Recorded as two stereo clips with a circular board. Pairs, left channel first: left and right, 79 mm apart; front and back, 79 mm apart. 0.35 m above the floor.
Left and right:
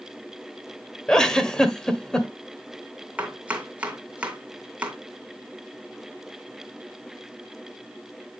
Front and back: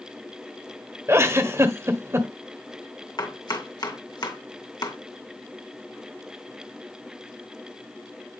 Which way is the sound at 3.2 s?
20° right.